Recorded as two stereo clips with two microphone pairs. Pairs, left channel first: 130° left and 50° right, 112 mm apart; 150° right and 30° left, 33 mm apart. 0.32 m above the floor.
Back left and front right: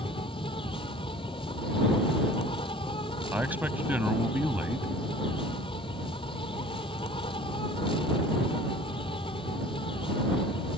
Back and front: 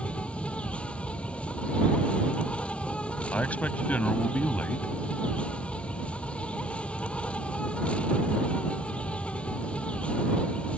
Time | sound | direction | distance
0.0 | an insect | 160° left | ?
3.3 | a man speaking | 125° right | ?